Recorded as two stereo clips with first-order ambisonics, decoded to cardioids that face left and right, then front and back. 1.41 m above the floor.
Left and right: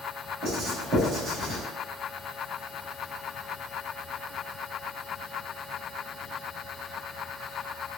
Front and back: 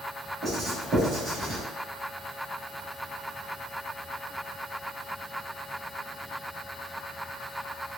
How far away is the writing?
About 1.6 m.